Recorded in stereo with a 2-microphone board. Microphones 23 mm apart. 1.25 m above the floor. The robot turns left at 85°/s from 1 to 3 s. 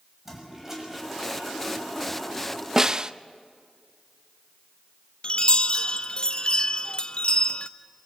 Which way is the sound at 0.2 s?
20° right.